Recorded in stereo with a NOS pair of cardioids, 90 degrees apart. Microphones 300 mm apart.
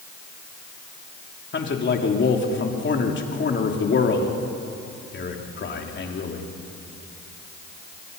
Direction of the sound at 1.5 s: 40° left.